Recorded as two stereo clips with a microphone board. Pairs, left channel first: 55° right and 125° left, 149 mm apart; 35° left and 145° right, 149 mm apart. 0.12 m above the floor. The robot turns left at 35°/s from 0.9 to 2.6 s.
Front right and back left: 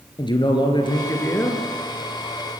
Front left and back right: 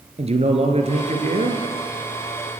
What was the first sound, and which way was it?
A man speaking, 110° right.